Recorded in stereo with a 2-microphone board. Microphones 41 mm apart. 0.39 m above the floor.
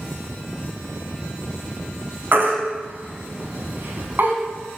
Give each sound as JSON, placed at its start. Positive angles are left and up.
{"t": 2.3, "sound": "a baby crying", "side_deg": -55, "distance_m": 2.5}